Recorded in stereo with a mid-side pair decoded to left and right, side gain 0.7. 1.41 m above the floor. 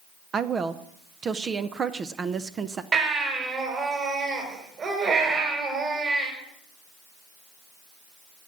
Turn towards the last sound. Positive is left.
turn(degrees=-35)